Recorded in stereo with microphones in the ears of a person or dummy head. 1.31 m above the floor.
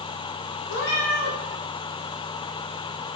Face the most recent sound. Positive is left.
turn(degrees=55)  # may be behind; listen again after turning